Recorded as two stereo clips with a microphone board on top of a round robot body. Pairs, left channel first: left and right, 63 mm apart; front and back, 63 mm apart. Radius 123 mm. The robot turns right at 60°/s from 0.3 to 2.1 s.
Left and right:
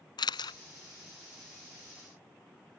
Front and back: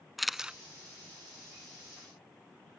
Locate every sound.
0.2 s a camera shutter: 90° left; by 0.6 s 110° left